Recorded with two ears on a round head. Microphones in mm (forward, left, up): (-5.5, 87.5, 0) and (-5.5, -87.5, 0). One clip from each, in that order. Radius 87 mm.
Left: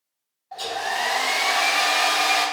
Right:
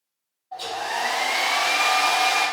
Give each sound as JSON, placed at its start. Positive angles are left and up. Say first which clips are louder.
{"t": 0.5, "sound": "a hair dryer", "louder": "left 1 dB", "side_deg": 55, "distance_m": 0.9}